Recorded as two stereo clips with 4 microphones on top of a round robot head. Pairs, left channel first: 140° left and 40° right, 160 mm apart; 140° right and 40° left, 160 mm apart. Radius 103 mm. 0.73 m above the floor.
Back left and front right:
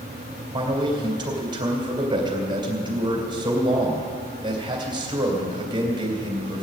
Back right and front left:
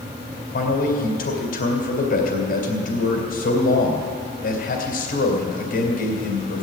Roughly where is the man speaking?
Right.